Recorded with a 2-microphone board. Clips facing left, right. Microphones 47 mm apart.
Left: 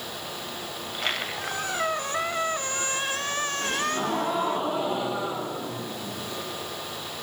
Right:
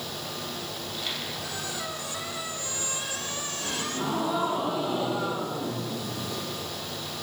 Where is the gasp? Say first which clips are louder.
Left 2 dB; 65° left (ahead or behind), 9 m.